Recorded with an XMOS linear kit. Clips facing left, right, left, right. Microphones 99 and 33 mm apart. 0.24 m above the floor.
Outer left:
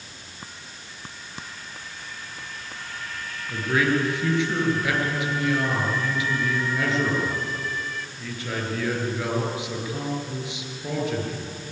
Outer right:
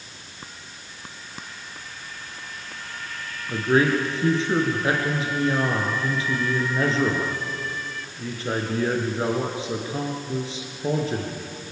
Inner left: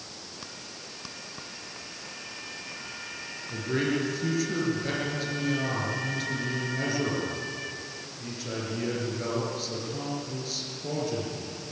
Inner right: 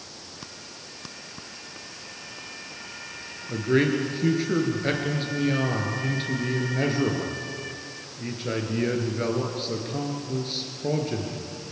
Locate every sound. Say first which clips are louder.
3.5 s a man speaking: outer right 3 dB, inner right 6 dB; 35° right (ahead or behind), 4.5 m